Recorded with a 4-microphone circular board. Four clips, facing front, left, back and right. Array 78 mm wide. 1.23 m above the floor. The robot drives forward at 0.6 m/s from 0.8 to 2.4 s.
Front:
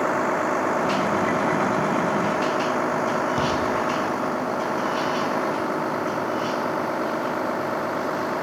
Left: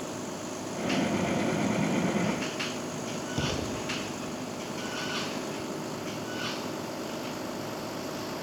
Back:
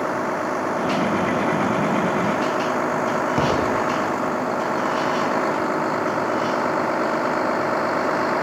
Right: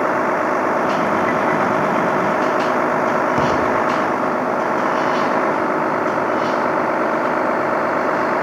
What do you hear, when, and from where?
0.0 s a vehicle: 85° right; by 8.4 s 105° right
3.4 s an explosion: 135° right